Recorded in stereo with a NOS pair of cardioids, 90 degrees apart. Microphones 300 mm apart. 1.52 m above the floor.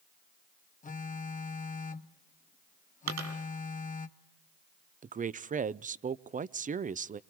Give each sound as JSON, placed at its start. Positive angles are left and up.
{"t": 0.8, "sound": "a phone buzzing", "azimuth_deg": 25, "distance_m": 1.4}
{"t": 3.1, "sound": "a dropped coin", "azimuth_deg": -70, "distance_m": 4.0}
{"t": 5.0, "sound": "a woman speaking", "azimuth_deg": -25, "distance_m": 0.6}